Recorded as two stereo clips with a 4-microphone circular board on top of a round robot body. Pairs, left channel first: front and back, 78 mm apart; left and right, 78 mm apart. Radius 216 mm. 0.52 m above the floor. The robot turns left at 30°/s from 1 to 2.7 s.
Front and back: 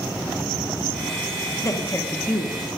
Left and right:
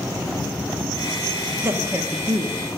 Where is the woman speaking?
35° right, 1.3 m; by 2.6 s 65° right, 1.3 m.